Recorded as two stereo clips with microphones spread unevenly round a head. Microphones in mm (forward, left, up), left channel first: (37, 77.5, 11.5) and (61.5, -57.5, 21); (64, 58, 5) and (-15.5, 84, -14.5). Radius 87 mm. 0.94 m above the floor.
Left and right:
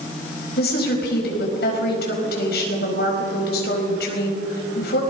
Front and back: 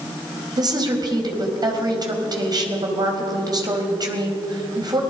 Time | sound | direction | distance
0.6 | a woman speaking | 125° left | 4.5 m